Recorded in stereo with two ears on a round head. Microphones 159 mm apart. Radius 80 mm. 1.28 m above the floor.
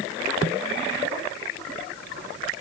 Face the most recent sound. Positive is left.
No sound to turn to.